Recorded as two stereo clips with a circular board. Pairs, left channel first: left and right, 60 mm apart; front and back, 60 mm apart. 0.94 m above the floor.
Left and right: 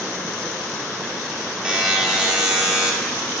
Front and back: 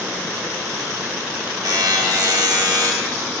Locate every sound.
1.6 s a buzzer: 165° right, 1.1 m